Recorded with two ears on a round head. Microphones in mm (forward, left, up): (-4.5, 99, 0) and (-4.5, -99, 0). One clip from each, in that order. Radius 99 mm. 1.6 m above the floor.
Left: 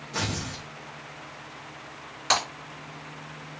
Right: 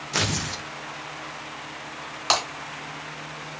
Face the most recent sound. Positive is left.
turn(degrees=-35)  # may be behind; listen again after turning